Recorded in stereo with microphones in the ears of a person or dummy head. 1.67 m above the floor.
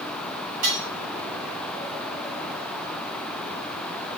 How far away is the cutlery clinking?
About 4.5 m.